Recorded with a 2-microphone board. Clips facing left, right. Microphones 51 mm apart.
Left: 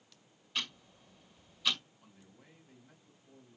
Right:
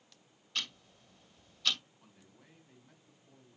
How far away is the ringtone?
No ringtone in this recording.